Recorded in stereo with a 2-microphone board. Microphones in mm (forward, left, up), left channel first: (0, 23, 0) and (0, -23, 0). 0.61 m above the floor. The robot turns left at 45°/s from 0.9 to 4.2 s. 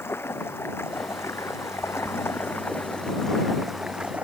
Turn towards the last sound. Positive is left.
turn(degrees=-30)